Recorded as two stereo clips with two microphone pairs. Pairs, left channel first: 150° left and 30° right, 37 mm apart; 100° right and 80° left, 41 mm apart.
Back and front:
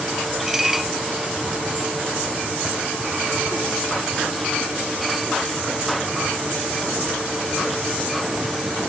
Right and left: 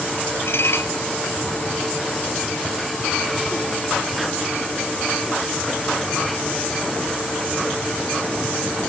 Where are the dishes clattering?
110° right.